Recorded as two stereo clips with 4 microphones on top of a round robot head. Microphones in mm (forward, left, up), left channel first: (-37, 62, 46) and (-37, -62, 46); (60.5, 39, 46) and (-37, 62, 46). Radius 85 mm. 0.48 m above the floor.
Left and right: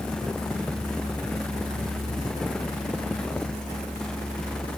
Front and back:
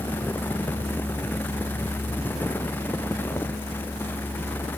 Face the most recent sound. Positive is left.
No sound to turn to.